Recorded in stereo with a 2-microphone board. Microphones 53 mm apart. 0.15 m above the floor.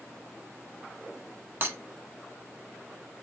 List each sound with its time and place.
1.6 s breaking glass: 40° right (ahead or behind), 1.1 m